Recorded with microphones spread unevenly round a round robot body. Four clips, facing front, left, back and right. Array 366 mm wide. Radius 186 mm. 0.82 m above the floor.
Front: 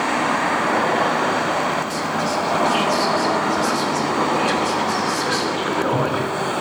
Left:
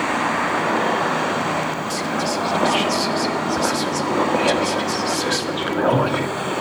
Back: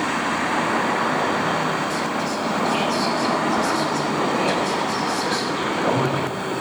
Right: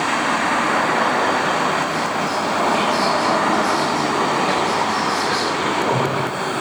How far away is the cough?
I don't hear a cough.